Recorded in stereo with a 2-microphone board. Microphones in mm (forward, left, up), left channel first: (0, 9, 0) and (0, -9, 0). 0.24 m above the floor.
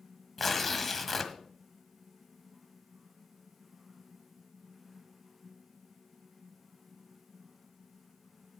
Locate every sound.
0.4 s tearing paper: 5° left (ahead or behind), 1.3 m